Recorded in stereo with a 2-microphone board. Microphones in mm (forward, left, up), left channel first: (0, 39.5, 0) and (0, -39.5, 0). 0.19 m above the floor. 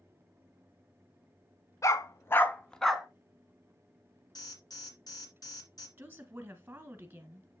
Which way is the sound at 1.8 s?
40° left (ahead or behind).